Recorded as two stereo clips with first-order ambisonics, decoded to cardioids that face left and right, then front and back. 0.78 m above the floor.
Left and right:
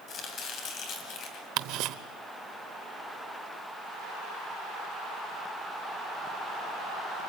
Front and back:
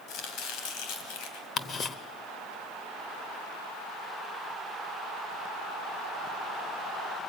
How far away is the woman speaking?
I don't hear a woman speaking.